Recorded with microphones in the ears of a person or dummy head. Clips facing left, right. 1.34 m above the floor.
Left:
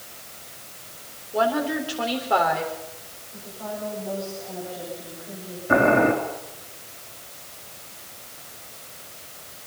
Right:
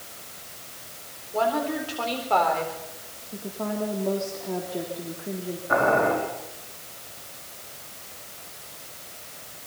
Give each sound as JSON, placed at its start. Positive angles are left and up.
{"t": 1.3, "sound": "a woman speaking", "side_deg": 15, "distance_m": 4.0}
{"t": 3.3, "sound": "a woman speaking", "side_deg": -70, "distance_m": 3.5}
{"t": 5.7, "sound": "boiling", "side_deg": 35, "distance_m": 4.5}